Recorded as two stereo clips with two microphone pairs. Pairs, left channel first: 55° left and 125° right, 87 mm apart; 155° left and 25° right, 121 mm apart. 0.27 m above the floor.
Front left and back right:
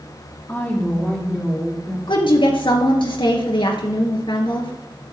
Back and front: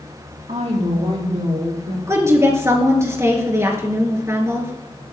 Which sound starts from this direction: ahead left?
A woman speaking, at 2.1 s.